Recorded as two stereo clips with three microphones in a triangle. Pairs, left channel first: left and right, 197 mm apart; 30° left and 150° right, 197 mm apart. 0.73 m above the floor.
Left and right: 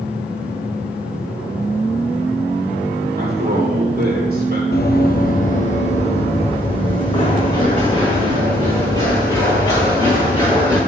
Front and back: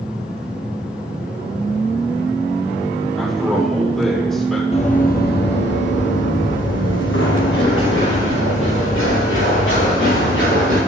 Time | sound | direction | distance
3.2 | a man speaking | 55° right | 3 m
4.7 | running footsteps | 80° left | 1.2 m